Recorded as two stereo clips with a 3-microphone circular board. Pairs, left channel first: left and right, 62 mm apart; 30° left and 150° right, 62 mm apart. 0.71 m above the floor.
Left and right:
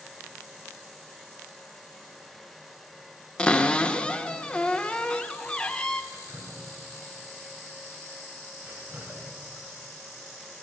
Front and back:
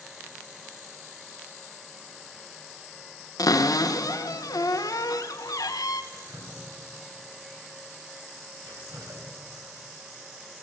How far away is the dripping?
About 3.5 m.